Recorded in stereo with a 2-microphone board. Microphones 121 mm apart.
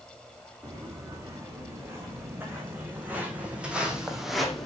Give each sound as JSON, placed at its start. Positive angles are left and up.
{"t": 0.6, "sound": "footsteps", "side_deg": -25, "distance_m": 4.5}